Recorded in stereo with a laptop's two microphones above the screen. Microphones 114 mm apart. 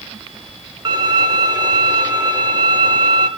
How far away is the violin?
About 0.7 m.